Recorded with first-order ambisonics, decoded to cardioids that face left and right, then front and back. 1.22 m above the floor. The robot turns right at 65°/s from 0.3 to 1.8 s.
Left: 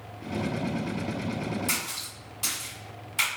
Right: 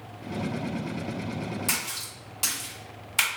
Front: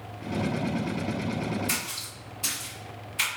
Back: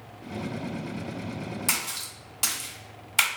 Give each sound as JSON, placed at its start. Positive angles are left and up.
{"t": 1.7, "sound": "a splash", "azimuth_deg": -160, "distance_m": 1.7}